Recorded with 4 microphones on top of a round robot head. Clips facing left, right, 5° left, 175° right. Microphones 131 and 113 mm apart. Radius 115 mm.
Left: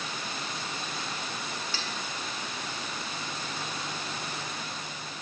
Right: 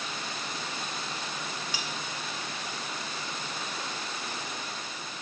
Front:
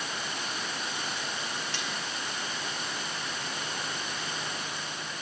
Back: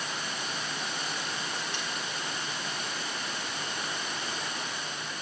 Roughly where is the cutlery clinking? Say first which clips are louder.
Even, even; ahead.